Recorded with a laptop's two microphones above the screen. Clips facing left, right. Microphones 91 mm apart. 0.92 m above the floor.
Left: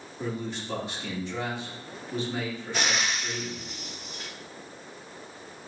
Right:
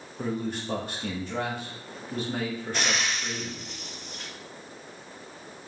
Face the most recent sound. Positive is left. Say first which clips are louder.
# left 2 dB
turn(degrees=5)  # may be behind; listen again after turning